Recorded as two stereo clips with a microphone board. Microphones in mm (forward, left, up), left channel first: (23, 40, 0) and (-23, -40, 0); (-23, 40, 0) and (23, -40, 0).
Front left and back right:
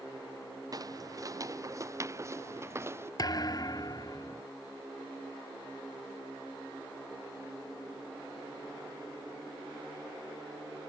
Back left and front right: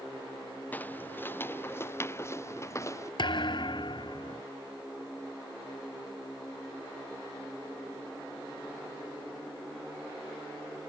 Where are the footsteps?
170° right; by 3.1 s straight behind.